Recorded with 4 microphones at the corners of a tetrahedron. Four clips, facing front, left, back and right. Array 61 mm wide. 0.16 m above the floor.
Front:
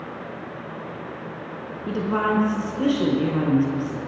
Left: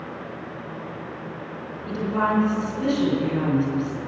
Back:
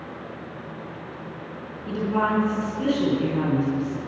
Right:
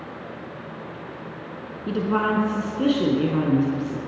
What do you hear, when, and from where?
1.9 s a woman speaking: 55° right, 4.5 m